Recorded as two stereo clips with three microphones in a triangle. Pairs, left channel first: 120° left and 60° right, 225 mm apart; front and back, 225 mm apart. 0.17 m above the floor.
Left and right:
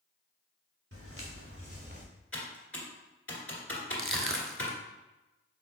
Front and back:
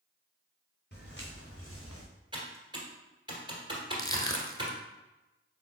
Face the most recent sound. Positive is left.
turn(degrees=-75)